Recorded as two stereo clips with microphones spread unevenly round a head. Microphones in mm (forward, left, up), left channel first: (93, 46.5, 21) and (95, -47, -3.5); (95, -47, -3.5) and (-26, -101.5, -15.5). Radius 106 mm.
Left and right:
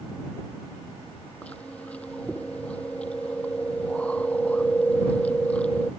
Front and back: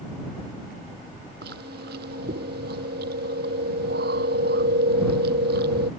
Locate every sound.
1.4 s chewing: 175° left